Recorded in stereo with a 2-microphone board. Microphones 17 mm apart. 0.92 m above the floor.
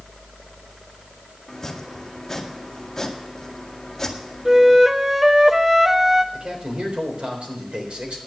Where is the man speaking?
75° right (ahead or behind), 4 m.